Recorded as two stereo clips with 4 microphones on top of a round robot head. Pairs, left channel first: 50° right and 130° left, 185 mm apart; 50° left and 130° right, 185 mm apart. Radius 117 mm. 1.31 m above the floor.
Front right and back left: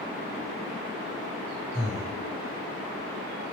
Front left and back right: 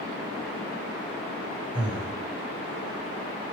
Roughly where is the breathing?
Ahead right.